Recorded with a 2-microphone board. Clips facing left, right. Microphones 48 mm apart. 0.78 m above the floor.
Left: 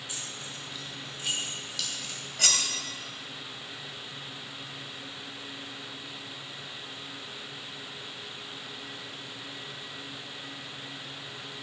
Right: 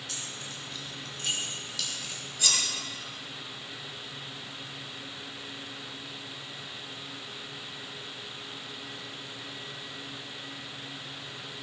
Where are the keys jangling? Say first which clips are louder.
Even; 15° left (ahead or behind), 5.5 m; by 2.2 s 10° right (ahead or behind), 3 m.